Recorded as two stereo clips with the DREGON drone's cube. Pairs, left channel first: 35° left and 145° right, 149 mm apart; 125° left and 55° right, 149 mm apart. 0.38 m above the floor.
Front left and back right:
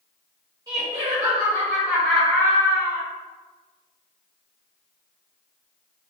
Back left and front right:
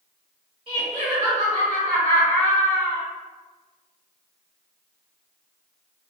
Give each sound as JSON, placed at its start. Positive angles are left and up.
{"t": 0.7, "sound": "laughter", "azimuth_deg": -90, "distance_m": 1.9}